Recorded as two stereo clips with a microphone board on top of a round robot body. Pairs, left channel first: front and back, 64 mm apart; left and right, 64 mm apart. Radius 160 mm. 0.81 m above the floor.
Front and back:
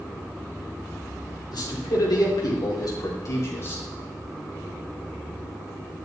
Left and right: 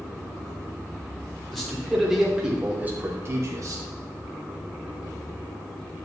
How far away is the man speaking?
About 3.5 m.